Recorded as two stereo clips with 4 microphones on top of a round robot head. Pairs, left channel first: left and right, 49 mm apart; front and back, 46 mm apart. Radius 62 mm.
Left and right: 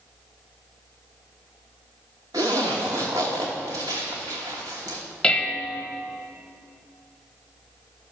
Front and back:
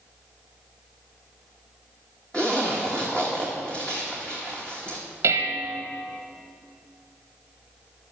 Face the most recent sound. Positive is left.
turn(degrees=165)